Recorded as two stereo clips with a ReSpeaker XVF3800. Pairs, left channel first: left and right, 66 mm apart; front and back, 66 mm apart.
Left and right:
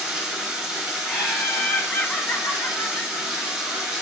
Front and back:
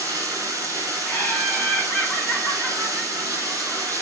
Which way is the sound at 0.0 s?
160° right.